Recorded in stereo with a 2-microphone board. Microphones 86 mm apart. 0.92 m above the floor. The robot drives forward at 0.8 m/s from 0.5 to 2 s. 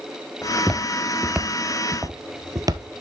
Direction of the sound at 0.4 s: 15° left (ahead or behind).